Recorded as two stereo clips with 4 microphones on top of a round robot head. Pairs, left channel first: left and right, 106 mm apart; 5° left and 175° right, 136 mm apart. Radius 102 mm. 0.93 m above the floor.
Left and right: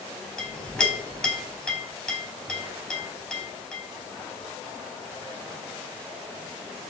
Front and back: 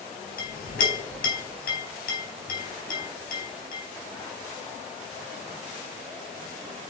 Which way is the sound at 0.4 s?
5° left.